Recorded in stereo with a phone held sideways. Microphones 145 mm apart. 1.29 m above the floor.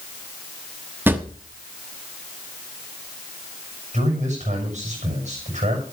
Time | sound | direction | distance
1.1 | a drawer | 15° right (ahead or behind) | 1.0 m
3.9 | a man speaking | 55° right (ahead or behind) | 7.5 m